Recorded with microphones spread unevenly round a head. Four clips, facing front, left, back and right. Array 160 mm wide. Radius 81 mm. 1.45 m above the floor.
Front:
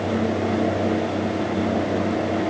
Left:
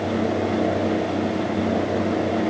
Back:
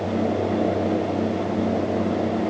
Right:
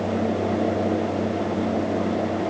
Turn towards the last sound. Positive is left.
No sound to turn to.